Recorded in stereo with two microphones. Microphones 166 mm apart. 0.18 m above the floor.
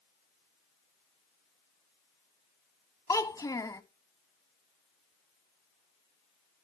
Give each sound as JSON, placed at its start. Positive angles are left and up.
{"t": 3.1, "sound": "a child speaking", "side_deg": 20, "distance_m": 0.6}